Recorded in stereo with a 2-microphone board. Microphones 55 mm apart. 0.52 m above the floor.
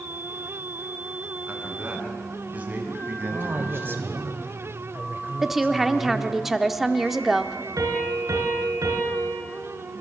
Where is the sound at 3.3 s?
40° right (ahead or behind), 2 m.